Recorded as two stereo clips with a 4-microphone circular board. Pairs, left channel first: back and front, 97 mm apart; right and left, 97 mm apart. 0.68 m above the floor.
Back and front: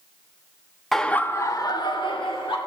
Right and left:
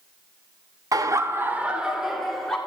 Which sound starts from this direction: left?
Laughter, at 0.9 s.